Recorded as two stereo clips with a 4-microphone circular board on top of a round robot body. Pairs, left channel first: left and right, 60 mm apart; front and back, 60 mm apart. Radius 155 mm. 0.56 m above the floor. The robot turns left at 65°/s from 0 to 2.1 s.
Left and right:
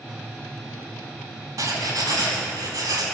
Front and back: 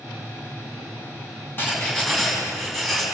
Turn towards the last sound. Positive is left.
turn(degrees=-90)